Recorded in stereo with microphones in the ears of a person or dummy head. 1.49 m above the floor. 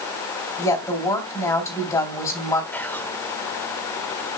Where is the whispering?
10° left (ahead or behind), 0.9 m.